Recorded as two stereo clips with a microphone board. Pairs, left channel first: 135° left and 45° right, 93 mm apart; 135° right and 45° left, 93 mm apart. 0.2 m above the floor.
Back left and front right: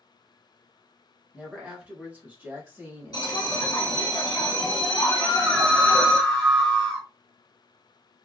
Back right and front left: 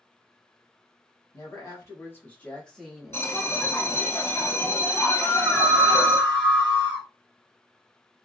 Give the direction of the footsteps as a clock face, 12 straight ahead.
No footsteps in this recording.